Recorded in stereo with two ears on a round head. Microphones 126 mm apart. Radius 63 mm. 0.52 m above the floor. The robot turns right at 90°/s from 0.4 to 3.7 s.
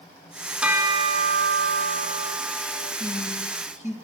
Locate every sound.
0.6 s a bell: 175° right, 1.1 m; by 2.9 s 30° left, 1.1 m
3.0 s a woman speaking: 60° left (ahead or behind), 4 m; by 4.0 s 50° left (ahead or behind), 4 m